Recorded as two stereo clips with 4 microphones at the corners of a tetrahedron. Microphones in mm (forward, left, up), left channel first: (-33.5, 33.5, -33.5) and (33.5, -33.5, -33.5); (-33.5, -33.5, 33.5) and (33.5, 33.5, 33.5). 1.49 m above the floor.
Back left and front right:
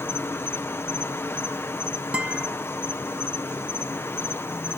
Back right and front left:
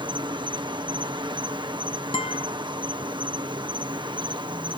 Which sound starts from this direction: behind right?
A guitar, at 2.1 s.